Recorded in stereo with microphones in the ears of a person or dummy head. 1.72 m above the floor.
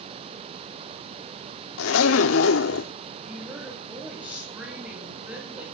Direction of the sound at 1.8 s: 80° left.